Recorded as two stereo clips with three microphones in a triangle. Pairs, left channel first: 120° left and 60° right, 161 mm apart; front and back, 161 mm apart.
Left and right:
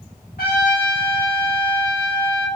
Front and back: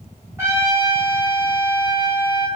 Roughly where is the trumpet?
Left.